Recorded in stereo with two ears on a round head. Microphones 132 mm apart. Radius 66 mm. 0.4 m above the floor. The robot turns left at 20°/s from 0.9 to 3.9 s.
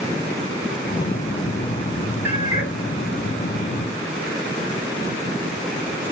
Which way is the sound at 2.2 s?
15° right (ahead or behind).